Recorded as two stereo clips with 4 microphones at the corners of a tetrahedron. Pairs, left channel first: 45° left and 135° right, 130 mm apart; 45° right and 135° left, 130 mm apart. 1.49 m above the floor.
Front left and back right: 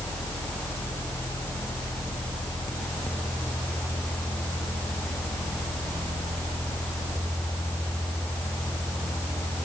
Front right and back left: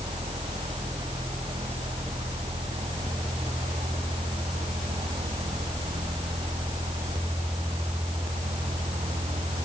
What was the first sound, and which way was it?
Only background noise.